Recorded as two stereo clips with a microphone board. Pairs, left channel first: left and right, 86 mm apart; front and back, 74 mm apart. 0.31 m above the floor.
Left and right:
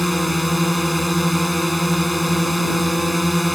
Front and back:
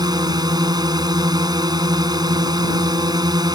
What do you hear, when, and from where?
0.0 s a drone: straight behind